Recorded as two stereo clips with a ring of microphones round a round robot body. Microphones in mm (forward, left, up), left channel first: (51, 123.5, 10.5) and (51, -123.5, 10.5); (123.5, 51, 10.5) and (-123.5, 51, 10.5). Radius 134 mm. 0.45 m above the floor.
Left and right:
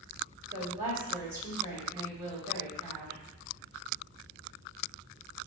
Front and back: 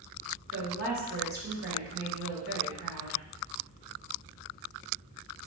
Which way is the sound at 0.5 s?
170° right.